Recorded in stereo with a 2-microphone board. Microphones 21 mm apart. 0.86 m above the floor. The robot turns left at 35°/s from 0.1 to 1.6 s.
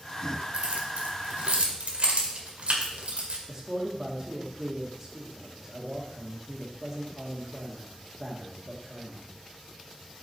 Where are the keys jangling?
80° right, 2.0 m; by 3.4 s 60° right (ahead or behind), 2.0 m.